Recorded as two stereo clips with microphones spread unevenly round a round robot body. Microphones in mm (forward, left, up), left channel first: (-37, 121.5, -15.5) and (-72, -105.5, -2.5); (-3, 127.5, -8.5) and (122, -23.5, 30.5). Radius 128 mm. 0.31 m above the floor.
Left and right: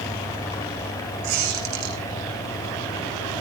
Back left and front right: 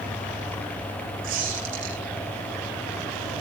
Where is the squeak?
95° right, 5 m.